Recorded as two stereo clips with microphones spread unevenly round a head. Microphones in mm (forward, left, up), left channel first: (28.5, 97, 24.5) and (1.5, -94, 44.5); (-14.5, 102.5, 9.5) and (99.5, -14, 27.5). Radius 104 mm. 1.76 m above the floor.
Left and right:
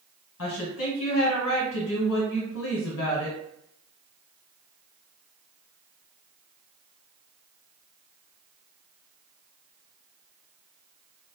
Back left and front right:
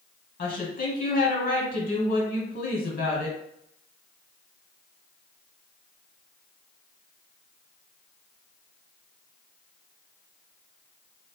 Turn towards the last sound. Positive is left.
turn(degrees=105)